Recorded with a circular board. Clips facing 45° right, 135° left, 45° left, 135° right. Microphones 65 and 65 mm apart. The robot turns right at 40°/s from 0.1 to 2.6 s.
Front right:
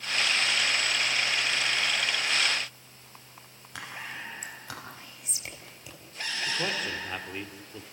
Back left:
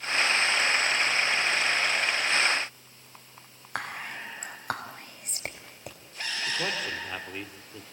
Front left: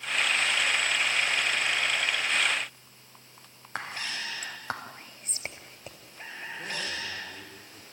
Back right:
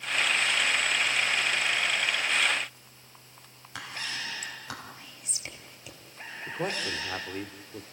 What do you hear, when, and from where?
3.8 s whispering: 95° left, 3.5 m
6.5 s a man speaking: 135° right, 2 m